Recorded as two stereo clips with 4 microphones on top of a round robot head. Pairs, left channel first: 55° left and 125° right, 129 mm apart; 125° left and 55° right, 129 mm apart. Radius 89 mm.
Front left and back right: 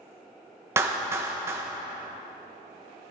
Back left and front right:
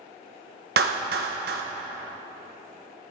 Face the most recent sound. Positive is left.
turn(degrees=-55)